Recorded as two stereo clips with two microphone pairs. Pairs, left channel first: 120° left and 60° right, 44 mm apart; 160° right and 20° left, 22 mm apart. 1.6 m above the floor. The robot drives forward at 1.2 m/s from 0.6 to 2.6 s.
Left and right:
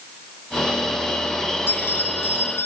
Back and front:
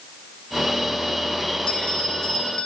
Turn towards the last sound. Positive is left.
turn(degrees=160)